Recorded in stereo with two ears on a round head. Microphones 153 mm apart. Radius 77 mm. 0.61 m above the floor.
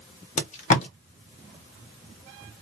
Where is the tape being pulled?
45° left (ahead or behind), 0.9 m.